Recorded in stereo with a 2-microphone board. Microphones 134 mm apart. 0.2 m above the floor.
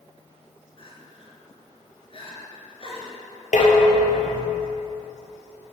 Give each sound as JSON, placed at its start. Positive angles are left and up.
{"t": 0.8, "sound": "crying", "side_deg": 40, "distance_m": 3.5}
{"t": 3.5, "sound": "dishes clattering", "side_deg": 70, "distance_m": 3.0}